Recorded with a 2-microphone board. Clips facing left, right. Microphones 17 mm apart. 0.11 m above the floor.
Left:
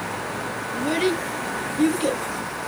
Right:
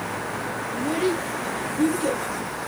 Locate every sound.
0.7 s a child speaking: 35° left (ahead or behind), 1.0 m